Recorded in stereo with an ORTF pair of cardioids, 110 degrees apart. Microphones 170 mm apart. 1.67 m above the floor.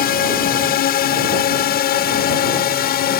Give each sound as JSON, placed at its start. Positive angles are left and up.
{"t": 0.0, "sound": "a drone", "azimuth_deg": 60}